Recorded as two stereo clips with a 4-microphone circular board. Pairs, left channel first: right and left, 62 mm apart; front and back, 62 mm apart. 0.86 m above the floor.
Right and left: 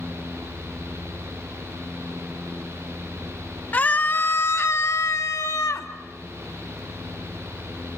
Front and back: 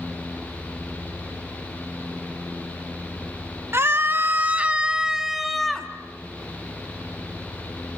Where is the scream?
150° right, 1.5 m; by 5.9 s 85° right, 2 m.